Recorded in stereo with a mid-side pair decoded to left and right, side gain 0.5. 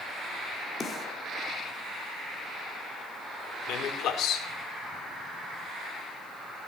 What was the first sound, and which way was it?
A snare drum, 35° left.